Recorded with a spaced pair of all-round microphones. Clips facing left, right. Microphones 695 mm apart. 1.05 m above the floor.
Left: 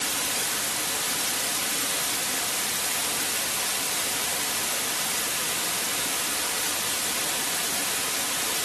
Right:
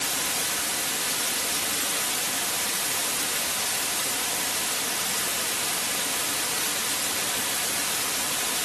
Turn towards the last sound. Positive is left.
No sound to turn to.